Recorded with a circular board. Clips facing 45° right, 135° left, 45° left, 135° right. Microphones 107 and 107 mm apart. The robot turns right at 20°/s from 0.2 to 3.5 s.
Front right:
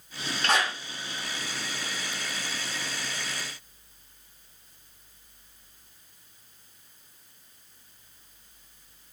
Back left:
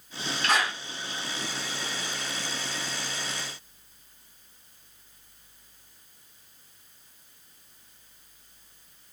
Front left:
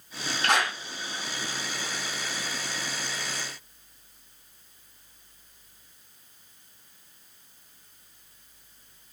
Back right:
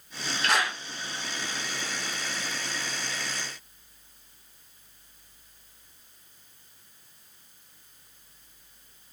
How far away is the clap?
About 3.5 m.